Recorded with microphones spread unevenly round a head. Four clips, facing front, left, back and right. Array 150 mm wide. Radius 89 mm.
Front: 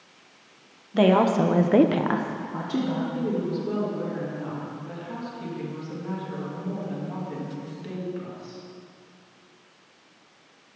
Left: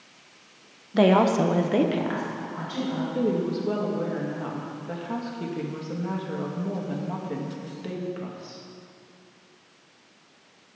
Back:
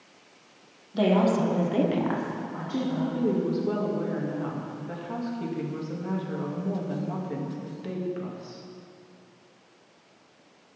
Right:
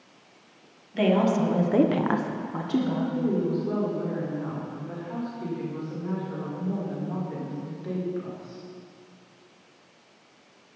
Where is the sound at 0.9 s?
55° left, 1.2 m; by 3.0 s 75° right, 1.5 m.